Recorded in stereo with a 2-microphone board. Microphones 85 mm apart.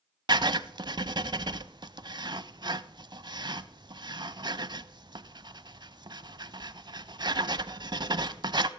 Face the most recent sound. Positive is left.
turn(degrees=-60)  # may be behind; listen again after turning